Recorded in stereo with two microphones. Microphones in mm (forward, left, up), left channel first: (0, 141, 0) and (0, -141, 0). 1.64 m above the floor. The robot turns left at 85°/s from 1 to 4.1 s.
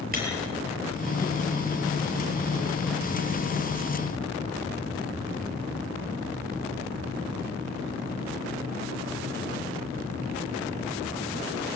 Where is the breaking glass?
30° right (ahead or behind), 7.5 m.